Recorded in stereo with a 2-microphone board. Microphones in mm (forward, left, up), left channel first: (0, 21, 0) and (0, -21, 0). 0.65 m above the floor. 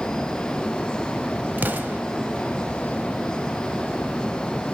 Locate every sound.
1.6 s an explosion: 45° right (ahead or behind), 0.8 m